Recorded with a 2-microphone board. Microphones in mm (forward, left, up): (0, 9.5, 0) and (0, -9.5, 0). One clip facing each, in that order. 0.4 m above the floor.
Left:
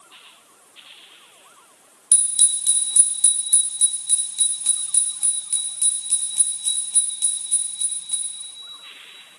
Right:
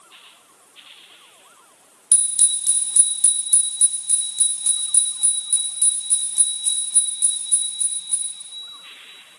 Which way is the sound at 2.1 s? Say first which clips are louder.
Even; 20° left (ahead or behind).